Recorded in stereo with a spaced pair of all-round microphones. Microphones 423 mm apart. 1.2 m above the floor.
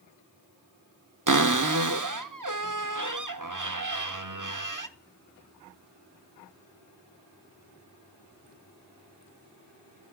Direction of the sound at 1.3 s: 45° right (ahead or behind).